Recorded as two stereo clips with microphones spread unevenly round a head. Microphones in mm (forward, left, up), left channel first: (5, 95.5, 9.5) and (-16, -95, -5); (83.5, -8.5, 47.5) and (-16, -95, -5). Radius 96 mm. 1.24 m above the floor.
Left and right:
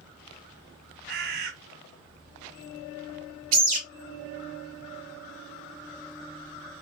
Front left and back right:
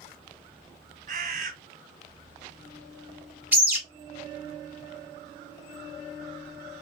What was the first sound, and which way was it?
A bird, 110° right.